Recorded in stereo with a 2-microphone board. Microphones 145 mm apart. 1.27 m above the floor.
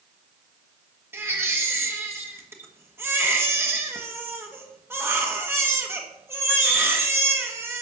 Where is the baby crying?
15° right (ahead or behind), 1.3 m.